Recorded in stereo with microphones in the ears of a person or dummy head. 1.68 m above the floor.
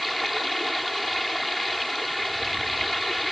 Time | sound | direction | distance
0.0 | running water | centre (ahead or behind) | ?